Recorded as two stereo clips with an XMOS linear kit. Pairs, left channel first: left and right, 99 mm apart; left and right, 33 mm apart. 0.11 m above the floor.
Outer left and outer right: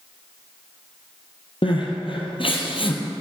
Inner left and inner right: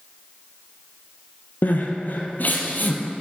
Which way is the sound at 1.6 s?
60° left (ahead or behind).